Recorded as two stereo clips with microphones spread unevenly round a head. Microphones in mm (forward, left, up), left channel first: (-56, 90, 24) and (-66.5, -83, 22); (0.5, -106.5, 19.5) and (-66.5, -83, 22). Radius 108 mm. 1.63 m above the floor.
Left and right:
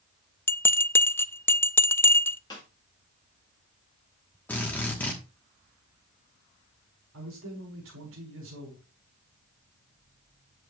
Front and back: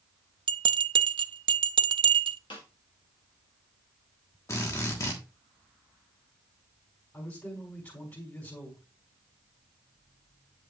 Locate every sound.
0.5 s a bell: 165° left, 0.5 m
2.5 s a snare drum: 15° left, 1.7 m
4.5 s a drill: 10° left, 1.3 m
7.1 s a man speaking: 75° right, 4.5 m